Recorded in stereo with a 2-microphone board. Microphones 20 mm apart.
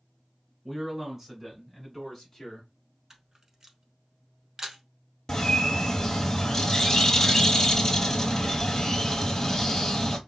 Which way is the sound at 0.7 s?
20° right (ahead or behind).